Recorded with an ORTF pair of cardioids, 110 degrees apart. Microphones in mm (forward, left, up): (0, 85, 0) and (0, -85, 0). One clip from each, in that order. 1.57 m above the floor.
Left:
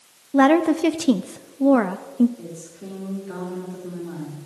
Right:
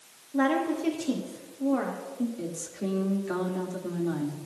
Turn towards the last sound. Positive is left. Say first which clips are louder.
# right 3 dB
turn(degrees=-40)